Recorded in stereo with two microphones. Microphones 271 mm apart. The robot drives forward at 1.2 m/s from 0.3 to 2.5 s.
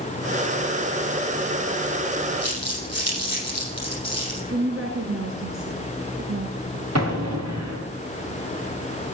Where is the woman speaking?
60° right (ahead or behind), 2 m.